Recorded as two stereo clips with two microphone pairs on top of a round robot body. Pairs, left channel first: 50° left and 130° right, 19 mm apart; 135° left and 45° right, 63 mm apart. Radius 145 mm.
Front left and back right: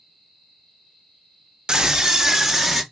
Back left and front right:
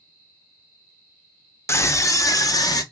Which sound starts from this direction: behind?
A scream, at 1.7 s.